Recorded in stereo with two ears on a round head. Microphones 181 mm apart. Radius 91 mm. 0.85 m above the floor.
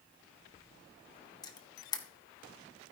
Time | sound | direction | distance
1.4 | a camera shutter | 20° left (ahead or behind) | 1.5 m